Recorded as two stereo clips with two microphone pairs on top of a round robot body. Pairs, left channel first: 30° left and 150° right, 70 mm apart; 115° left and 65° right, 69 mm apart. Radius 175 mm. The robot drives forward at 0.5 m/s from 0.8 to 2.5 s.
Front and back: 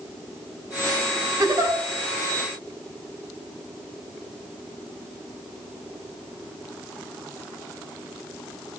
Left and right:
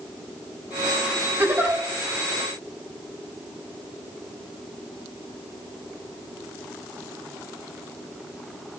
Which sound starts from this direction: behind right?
A giggle, at 1.4 s.